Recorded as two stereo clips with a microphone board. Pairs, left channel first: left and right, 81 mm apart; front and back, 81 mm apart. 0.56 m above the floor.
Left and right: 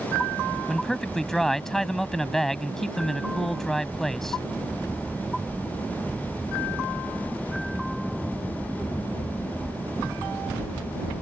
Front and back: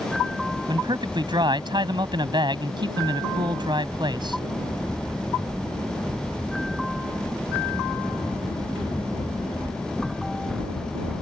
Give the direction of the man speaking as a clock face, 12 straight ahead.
6 o'clock.